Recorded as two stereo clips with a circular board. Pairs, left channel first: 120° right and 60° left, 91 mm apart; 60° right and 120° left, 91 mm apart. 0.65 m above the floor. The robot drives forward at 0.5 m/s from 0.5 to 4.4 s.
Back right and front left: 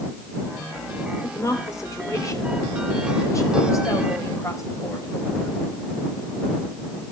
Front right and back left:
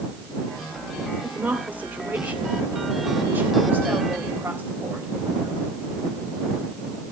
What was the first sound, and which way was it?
A woman speaking, 170° right.